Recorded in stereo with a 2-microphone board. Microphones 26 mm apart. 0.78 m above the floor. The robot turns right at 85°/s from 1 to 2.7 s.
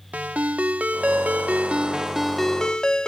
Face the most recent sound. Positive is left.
turn(degrees=35)